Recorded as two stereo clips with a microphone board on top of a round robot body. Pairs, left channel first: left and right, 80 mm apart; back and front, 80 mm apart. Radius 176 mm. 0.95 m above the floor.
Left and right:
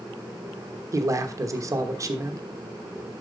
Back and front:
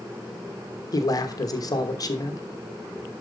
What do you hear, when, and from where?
0.9 s a man speaking: 140° right, 1.1 m